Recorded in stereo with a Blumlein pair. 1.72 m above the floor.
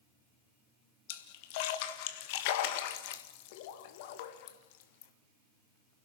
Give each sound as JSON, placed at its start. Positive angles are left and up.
{"t": 1.1, "sound": "a splash", "azimuth_deg": 50, "distance_m": 1.8}